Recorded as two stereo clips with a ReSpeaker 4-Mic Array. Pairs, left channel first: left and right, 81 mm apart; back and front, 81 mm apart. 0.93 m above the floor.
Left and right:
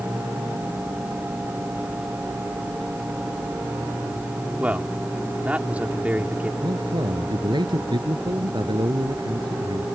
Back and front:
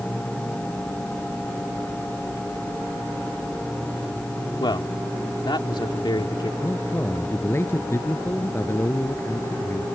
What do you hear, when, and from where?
4.6 s a man speaking: 165° right
6.6 s a man speaking: 120° right